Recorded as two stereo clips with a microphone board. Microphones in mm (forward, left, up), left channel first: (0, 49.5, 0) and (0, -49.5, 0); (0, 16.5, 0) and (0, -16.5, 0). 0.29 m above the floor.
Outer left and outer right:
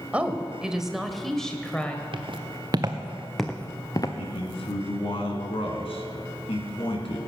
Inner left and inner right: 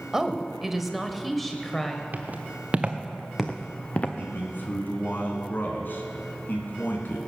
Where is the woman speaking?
15° right (ahead or behind), 1.2 m; by 2.0 s 15° left (ahead or behind), 1.2 m.